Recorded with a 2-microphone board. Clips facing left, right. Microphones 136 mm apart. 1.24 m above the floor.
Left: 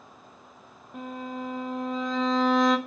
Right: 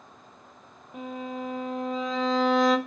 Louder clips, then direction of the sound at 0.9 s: Right 1 dB; centre (ahead or behind).